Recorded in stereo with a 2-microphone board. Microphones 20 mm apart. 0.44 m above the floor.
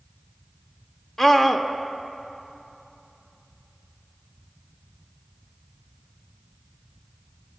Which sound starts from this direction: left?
A scream, at 1.2 s.